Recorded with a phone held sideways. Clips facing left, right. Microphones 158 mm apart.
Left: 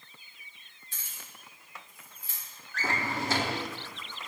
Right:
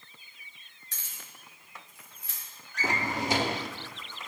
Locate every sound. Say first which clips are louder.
0.9 s keys jangling: even; 80° right, 1.9 m; by 2.4 s 65° right (ahead or behind), 2.5 m
2.7 s a drawer: right 1 dB; 15° right (ahead or behind), 0.8 m